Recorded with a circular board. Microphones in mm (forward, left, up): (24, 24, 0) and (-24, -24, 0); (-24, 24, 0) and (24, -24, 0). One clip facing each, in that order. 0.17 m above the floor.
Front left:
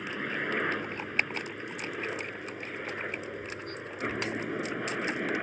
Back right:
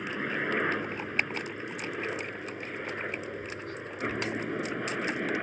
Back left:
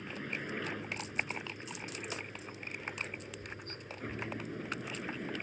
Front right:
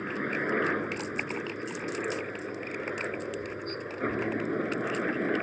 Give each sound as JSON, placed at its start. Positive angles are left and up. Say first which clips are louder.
{"t": 0.0, "sound": "a helicopter", "louder": "back right 2 dB, front right 10 dB", "azimuth_deg": -55}